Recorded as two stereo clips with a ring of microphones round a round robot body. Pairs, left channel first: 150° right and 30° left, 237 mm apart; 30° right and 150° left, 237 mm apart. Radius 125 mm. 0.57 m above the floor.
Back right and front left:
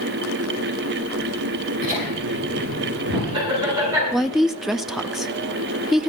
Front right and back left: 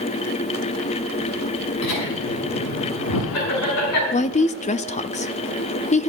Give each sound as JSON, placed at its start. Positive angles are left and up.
{"t": 1.8, "sound": "laughter", "azimuth_deg": -25, "distance_m": 8.0}
{"t": 4.1, "sound": "a woman speaking", "azimuth_deg": -55, "distance_m": 0.6}